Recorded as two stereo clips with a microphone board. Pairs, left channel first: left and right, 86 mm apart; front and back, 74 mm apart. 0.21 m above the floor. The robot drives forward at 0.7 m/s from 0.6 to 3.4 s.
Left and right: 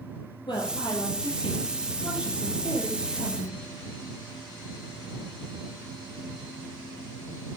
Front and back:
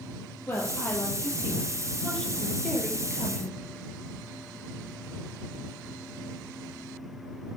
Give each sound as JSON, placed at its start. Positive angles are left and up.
{"t": 0.5, "sound": "a woman speaking", "azimuth_deg": 65, "distance_m": 5.0}